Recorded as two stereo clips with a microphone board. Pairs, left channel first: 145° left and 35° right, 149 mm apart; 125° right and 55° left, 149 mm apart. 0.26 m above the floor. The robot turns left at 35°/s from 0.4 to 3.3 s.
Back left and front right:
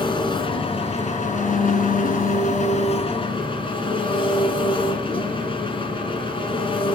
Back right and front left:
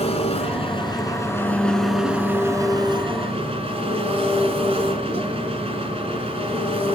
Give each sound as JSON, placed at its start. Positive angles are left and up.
{"t": 0.0, "sound": "an engine running", "azimuth_deg": -165, "distance_m": 2.0}